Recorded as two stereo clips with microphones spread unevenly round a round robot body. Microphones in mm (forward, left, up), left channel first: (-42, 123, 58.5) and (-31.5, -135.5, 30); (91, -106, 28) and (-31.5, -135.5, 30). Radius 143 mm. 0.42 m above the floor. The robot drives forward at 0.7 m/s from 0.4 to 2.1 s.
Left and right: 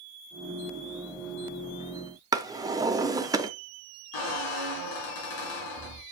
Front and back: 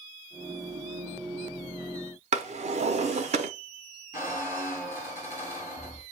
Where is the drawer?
160° right, 0.5 m.